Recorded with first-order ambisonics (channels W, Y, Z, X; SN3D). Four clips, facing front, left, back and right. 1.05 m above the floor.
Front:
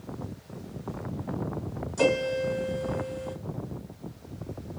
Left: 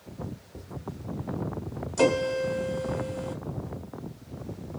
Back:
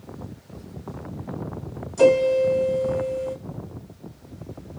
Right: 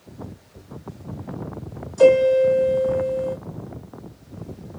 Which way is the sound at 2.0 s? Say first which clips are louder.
Right 10 dB, back 8 dB; 95° left.